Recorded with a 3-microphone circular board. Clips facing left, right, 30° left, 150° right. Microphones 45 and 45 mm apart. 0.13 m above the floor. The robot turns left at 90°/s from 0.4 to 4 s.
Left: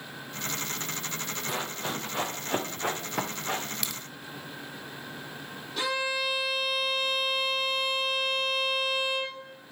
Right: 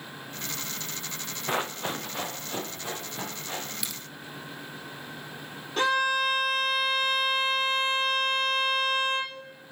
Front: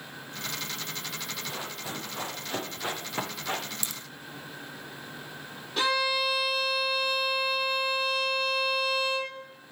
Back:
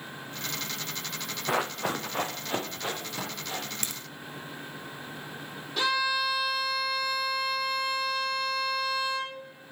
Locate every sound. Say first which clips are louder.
1.5 s running footsteps: right 5 dB, back 8 dB; 145° right, 1.0 m; by 3.6 s 50° left, 3 m
3.8 s a crack: left 1 dB, back 1 dB; 175° right, 0.8 m; by 4.0 s 170° left, 0.8 m
5.8 s a violin: right 5 dB, front 1 dB; 45° right, 2.5 m